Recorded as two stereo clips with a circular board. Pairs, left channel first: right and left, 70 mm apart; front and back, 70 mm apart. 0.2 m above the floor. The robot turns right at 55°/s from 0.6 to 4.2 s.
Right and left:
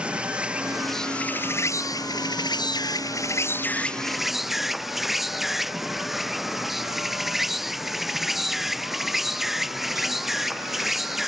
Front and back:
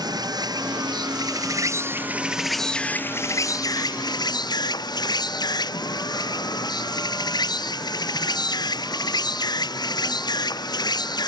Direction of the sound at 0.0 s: 165° left.